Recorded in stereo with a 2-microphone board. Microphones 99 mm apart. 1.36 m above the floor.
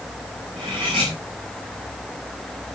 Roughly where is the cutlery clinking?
Right.